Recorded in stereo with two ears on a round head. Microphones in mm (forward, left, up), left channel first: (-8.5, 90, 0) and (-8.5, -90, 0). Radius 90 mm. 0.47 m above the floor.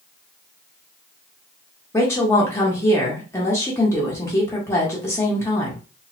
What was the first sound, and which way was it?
A woman speaking, 15° left (ahead or behind).